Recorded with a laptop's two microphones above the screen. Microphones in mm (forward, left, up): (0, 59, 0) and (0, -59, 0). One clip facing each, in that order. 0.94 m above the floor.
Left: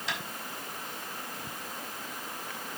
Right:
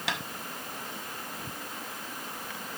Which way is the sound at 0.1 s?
75° right (ahead or behind).